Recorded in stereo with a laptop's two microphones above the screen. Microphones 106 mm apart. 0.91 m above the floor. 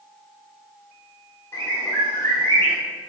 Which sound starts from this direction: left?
A bird, at 1.5 s.